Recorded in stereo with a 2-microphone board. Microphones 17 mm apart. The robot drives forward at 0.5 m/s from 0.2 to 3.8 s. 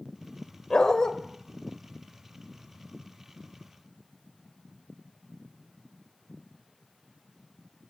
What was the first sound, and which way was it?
A dog barking, 50° left (ahead or behind).